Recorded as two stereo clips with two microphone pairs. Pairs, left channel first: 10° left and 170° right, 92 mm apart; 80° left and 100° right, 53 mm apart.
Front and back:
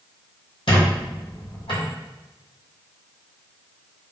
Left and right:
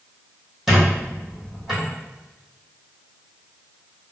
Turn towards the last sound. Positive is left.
turn(degrees=-15)